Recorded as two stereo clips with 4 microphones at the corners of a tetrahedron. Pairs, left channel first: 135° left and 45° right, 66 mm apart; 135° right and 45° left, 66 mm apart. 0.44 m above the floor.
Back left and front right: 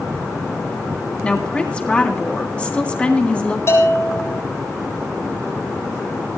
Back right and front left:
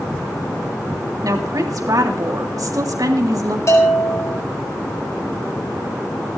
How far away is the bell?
About 7.5 m.